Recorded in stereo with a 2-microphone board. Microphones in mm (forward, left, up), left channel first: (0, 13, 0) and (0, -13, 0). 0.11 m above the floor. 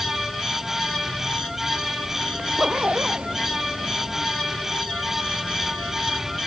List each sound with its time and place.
2.4 s a zipper: 50° right (ahead or behind)